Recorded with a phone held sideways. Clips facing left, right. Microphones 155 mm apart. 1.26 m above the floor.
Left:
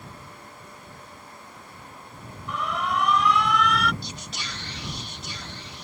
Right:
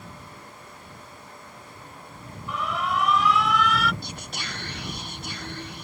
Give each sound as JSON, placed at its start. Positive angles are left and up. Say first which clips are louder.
{"t": 2.5, "sound": "an alarm", "louder": "even", "side_deg": 0}
{"t": 4.0, "sound": "whispering", "louder": "right 1 dB", "side_deg": -55}